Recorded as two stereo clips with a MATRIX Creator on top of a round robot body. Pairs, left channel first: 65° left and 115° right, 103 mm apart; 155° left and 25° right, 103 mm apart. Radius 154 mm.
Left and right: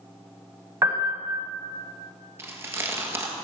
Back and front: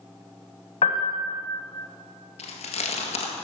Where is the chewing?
Straight behind, 1.7 m.